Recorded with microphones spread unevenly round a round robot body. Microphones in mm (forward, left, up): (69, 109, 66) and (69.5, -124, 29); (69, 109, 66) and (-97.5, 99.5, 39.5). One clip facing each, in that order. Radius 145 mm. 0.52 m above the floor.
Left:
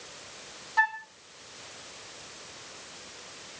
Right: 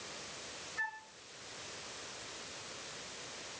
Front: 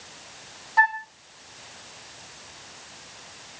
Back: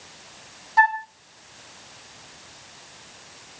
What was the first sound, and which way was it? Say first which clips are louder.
A flute: left 16 dB, back 4 dB; 120° left.